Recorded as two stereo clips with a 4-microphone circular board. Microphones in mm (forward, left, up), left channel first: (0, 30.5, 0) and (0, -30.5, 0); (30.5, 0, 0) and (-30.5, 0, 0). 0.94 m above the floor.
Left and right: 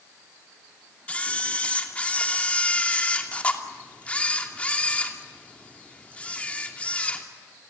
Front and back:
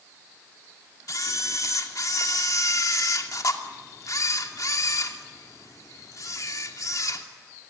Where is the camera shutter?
25° left, 2.5 m.